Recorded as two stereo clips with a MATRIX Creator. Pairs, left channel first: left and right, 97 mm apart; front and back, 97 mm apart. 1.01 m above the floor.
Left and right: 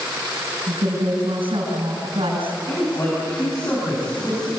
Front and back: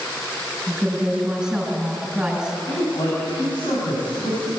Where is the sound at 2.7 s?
35° left, 7.5 m.